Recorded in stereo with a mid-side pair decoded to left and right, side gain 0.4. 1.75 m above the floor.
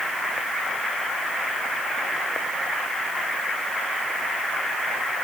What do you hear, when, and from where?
Only background noise.